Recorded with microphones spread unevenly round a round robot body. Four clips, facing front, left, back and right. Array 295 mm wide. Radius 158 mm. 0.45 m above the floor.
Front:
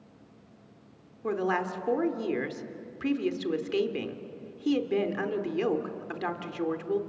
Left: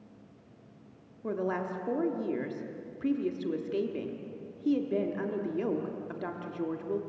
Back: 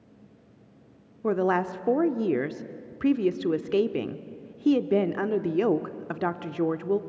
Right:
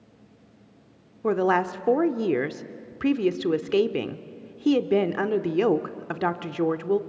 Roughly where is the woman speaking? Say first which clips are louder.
Right 10 dB, back 4 dB; right.